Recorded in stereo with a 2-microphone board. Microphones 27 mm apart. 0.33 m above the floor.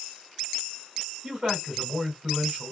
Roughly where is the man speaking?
Right.